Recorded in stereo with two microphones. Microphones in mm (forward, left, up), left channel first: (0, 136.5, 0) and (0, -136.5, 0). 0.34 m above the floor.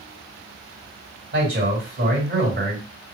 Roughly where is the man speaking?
Right.